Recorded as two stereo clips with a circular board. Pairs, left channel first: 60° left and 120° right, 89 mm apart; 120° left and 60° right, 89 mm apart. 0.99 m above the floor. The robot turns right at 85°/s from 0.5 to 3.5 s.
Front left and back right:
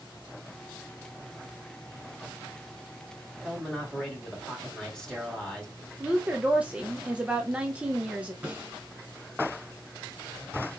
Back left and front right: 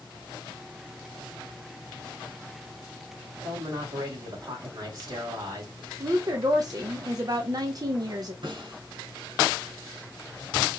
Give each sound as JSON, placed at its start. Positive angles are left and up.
{"t": 3.4, "sound": "a man speaking", "azimuth_deg": -25, "distance_m": 2.0}
{"t": 6.0, "sound": "a woman speaking", "azimuth_deg": -50, "distance_m": 0.5}
{"t": 8.4, "sound": "a snare drum", "azimuth_deg": -50, "distance_m": 1.8}